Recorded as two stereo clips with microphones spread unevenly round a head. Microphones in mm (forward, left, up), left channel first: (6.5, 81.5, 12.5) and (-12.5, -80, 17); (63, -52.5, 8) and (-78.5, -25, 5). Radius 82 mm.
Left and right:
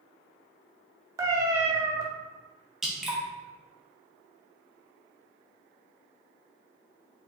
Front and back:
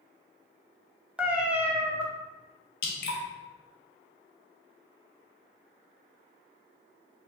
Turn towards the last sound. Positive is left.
turn(degrees=-10)